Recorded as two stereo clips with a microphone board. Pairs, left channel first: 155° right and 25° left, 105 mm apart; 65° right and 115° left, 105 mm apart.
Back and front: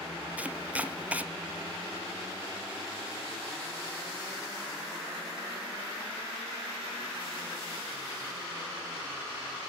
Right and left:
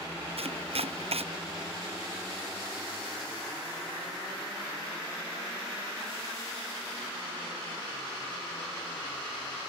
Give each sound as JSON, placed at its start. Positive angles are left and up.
{"t": 0.4, "sound": "chopping", "azimuth_deg": 100, "distance_m": 0.7}